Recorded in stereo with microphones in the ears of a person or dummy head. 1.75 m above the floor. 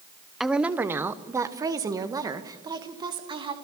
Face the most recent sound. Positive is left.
turn(degrees=-25)  # may be behind; listen again after turning